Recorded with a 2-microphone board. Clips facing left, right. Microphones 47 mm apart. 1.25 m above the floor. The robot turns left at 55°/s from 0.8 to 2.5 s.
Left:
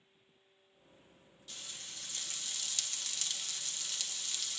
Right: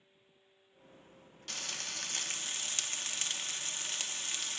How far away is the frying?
About 0.7 m.